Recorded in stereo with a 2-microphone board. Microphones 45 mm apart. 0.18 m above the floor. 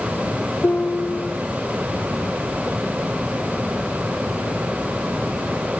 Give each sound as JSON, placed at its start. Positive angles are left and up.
{"t": 0.6, "sound": "a piano", "side_deg": 50, "distance_m": 1.2}